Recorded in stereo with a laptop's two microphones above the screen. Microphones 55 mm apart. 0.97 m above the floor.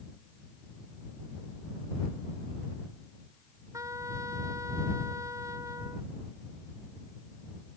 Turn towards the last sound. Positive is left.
turn(degrees=-70)  # may be behind; listen again after turning